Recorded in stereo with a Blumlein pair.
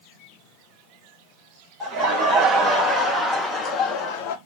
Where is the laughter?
25° right, 3 m; by 4.4 s 50° left, 1.4 m.